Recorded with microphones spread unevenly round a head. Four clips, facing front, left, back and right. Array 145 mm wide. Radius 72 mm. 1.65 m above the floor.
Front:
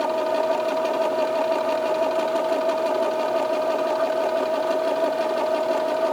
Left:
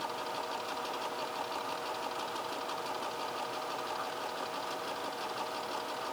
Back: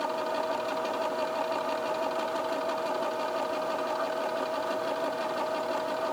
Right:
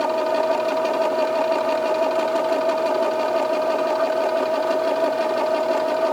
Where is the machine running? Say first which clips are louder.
Right 18 dB, front 8 dB; 60° right.